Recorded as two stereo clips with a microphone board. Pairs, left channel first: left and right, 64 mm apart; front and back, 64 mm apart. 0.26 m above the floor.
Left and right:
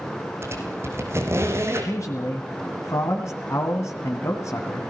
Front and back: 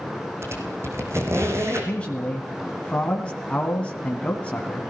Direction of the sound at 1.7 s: 70° left.